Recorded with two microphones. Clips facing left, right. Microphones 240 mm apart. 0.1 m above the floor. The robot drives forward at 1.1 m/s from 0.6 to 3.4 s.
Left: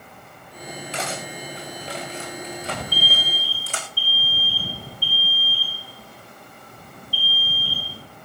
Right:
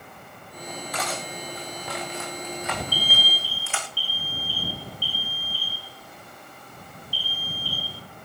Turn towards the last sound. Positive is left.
turn(degrees=65)  # may be behind; listen again after turning